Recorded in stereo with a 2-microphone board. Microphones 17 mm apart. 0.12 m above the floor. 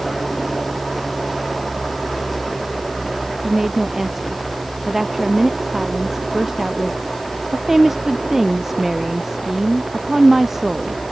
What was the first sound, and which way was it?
A woman speaking, 15° right (ahead or behind).